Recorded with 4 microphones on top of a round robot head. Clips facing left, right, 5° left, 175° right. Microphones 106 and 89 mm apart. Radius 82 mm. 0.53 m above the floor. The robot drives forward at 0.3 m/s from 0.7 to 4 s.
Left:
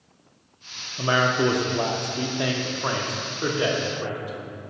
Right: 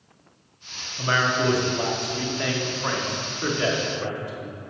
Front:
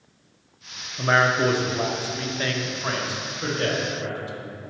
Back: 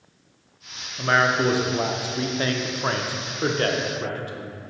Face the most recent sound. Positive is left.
turn(degrees=160)